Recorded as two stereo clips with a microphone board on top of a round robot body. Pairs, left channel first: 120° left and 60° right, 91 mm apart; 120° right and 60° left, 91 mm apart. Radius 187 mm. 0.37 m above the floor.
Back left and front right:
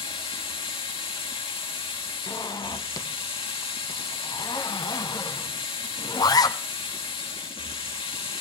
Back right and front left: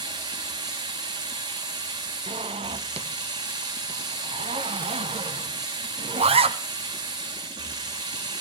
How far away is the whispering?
I don't hear whispering.